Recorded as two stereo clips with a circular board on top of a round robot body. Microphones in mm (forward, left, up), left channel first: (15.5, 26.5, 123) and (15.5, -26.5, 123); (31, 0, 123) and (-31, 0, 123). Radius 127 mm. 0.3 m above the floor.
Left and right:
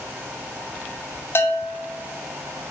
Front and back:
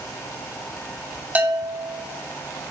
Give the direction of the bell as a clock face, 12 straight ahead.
8 o'clock.